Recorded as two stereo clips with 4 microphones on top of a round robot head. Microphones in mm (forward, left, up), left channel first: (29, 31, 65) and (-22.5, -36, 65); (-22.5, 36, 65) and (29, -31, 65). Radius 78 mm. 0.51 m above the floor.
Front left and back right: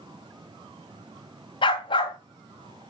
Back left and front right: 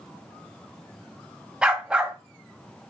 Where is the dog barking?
30° left, 1.3 m.